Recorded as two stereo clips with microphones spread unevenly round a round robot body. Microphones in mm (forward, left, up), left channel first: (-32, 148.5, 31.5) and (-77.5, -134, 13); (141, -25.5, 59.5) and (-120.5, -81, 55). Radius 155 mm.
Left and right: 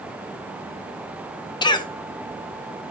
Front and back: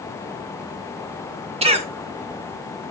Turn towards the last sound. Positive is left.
turn(degrees=150)